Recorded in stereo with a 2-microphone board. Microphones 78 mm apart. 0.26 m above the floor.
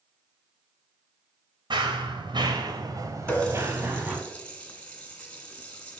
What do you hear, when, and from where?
1.7 s running footsteps: 85° right, 2.5 m; by 4.2 s 15° right (ahead or behind), 3 m
3.3 s a running tap: 15° left (ahead or behind), 1.8 m